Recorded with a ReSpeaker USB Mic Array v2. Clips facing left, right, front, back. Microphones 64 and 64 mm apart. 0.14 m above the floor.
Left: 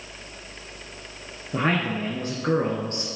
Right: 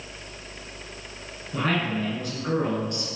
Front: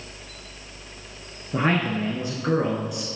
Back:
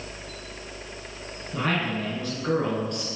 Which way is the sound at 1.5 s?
45° left.